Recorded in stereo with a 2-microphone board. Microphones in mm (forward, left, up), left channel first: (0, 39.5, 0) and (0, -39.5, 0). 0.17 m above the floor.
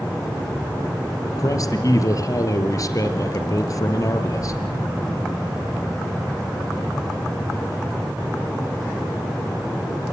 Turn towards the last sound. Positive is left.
turn(degrees=45)  # may be behind; listen again after turning